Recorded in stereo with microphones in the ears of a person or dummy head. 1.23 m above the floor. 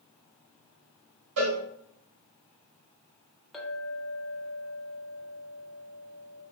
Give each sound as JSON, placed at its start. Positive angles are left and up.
{"t": 1.4, "sound": "a cowbell", "side_deg": -55, "distance_m": 1.5}
{"t": 3.5, "sound": "a clink", "side_deg": 0, "distance_m": 0.6}